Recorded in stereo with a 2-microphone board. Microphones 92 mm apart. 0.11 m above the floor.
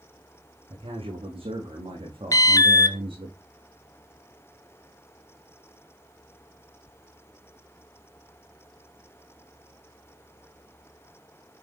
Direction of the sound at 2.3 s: 40° left (ahead or behind).